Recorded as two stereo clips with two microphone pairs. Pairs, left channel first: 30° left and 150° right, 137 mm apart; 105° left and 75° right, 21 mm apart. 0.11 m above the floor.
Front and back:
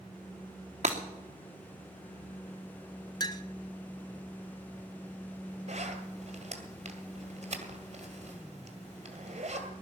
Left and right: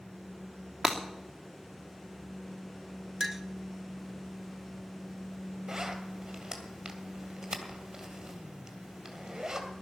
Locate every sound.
0.8 s breaking glass: 170° right, 2.5 m
3.2 s a clink: 5° right, 1.0 m
5.7 s a zipper: 140° right, 1.9 m